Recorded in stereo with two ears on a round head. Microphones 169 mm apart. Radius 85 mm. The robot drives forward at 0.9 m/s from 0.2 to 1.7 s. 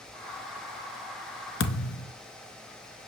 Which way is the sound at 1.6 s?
70° left (ahead or behind).